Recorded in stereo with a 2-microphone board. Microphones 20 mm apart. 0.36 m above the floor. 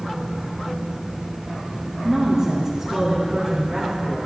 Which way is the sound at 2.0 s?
20° right (ahead or behind).